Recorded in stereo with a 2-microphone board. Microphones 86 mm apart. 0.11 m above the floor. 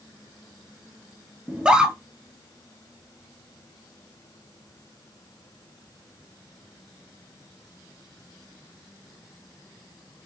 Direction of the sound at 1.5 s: 10° right (ahead or behind).